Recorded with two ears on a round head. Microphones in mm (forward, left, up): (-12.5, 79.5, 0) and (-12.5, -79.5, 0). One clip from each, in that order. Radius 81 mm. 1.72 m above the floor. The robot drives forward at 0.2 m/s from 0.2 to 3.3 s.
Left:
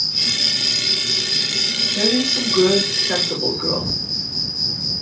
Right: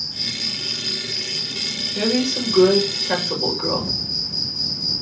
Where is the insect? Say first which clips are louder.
Left 6 dB; 50° left (ahead or behind), 0.7 m; by 5.0 s 25° left (ahead or behind), 1.2 m.